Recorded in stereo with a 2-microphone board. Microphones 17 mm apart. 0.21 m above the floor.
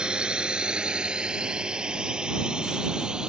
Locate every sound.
0.0 s a drone: 60° right (ahead or behind)